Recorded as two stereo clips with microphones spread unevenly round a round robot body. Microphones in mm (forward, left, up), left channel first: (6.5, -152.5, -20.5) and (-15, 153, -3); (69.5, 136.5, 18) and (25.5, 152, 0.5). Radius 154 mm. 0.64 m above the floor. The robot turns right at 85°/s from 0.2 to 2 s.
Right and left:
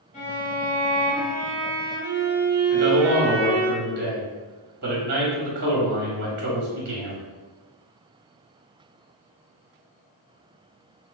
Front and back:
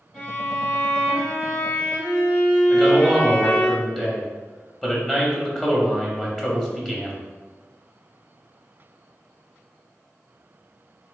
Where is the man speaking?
90° left, 0.8 m.